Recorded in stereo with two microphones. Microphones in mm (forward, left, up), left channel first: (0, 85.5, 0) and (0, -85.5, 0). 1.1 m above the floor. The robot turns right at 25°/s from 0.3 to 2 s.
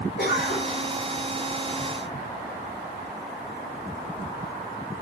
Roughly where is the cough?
Left.